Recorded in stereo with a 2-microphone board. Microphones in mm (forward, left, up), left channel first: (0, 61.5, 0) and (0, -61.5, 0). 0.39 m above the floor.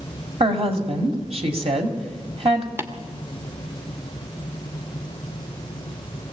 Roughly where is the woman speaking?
Right.